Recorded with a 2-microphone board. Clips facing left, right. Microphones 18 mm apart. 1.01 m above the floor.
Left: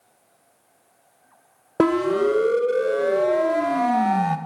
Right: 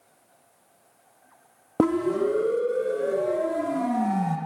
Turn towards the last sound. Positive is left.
turn(degrees=40)  # may be behind; listen again after turning